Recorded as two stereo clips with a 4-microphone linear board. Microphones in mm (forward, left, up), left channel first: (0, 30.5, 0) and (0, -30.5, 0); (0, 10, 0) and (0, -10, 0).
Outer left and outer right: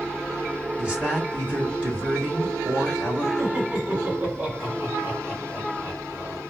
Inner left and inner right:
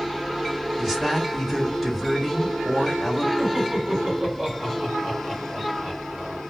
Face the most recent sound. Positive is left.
turn(degrees=-30)  # may be behind; listen again after turning